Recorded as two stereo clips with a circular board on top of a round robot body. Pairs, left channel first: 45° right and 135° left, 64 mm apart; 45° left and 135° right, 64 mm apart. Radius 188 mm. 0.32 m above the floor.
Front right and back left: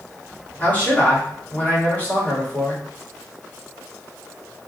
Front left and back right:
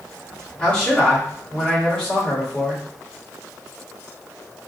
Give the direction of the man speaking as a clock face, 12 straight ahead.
12 o'clock.